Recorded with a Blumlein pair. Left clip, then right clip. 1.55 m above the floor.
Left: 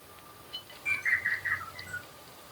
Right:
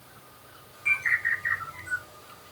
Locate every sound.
0.8 s a bird: 65° right, 4 m